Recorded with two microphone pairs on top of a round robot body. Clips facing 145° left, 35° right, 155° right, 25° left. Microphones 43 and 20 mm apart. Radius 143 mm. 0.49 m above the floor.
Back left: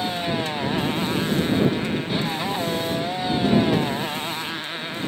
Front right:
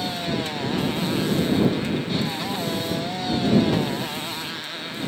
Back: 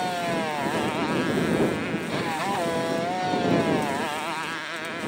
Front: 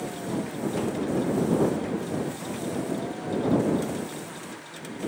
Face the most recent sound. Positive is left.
turn(degrees=-140)